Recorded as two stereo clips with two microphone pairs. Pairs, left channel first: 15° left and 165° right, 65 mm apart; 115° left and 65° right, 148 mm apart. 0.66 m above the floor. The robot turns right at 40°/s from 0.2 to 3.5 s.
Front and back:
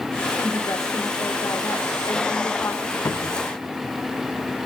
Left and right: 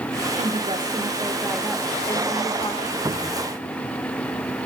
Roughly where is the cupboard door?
Ahead.